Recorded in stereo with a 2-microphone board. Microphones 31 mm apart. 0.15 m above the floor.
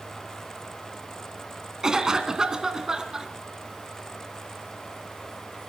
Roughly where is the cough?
Right.